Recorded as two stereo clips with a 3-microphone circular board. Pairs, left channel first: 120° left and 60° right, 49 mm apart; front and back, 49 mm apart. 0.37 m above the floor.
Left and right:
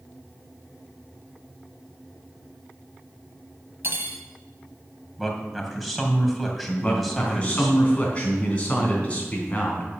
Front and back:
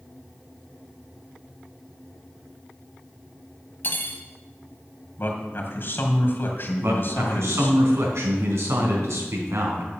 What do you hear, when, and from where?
3.8 s cutlery clinking: 35° right, 1.5 m
5.2 s a man speaking: 30° left, 2.5 m
6.8 s a man speaking: straight behind, 3.5 m